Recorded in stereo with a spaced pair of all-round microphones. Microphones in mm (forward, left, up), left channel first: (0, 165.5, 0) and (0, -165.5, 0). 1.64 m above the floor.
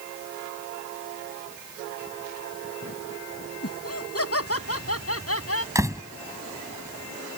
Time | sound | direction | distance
3.6 | laughter | 50° left (ahead or behind) | ?
5.8 | a door slam | 10° right (ahead or behind) | ?